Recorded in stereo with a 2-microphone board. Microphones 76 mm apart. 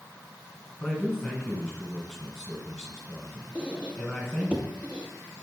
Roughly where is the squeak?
Centre.